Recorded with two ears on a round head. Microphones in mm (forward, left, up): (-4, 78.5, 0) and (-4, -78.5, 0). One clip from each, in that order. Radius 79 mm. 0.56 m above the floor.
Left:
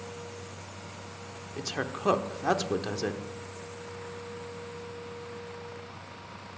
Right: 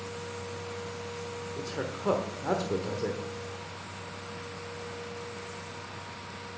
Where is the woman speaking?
55° left (ahead or behind), 1.1 m.